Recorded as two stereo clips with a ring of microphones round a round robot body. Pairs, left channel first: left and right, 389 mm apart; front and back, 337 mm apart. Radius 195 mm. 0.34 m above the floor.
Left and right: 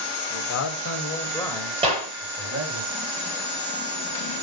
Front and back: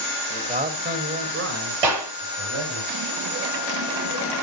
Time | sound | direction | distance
0.3 | a man speaking | 110° left | 2 m
1.8 | a clap | 165° right | 8 m